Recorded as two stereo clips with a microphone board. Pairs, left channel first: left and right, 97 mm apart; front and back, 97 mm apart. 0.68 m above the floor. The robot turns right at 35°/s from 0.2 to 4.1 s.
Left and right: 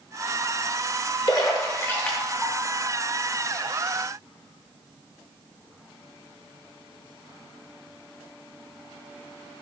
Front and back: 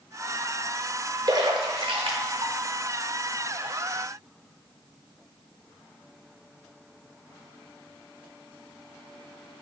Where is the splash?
135° left, 0.7 m; by 2.5 s 175° left, 0.7 m.